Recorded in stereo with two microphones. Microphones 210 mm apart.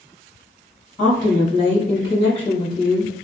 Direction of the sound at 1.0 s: 35° left (ahead or behind).